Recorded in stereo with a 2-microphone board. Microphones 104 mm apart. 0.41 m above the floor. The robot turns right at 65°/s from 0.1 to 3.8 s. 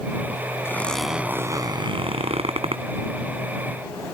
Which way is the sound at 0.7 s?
155° left.